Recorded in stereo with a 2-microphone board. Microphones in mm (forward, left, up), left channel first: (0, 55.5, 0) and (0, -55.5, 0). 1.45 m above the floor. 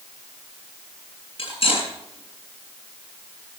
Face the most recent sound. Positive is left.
turn(degrees=60)  # may be behind; listen again after turning